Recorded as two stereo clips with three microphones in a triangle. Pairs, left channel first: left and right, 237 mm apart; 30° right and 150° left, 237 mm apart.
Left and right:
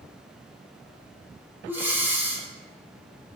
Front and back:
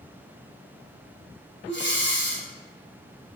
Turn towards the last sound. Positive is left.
turn(degrees=-10)